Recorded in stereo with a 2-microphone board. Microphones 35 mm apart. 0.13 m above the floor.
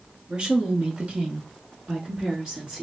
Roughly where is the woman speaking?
Right.